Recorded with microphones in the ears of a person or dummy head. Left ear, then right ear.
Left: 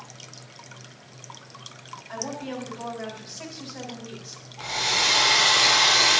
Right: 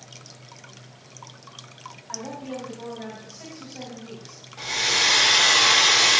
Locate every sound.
2.1 s a woman speaking: 40° left (ahead or behind), 4.5 m
4.6 s a hair dryer: 60° right (ahead or behind), 6 m